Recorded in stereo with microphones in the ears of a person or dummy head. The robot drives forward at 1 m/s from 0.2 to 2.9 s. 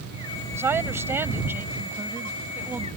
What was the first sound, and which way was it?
A woman speaking, 15° right (ahead or behind).